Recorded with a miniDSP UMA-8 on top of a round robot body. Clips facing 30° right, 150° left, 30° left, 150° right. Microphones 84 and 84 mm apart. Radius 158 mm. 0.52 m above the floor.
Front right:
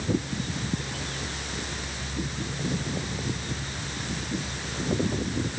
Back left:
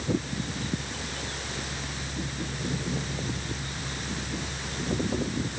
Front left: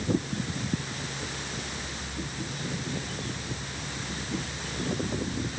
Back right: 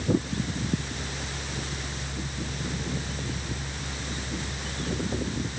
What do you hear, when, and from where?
Only background noise.